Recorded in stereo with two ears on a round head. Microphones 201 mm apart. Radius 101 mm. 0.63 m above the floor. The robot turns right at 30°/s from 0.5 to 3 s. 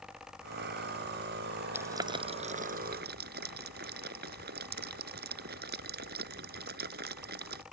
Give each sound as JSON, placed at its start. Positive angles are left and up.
{"t": 1.7, "sound": "boiling", "side_deg": -10}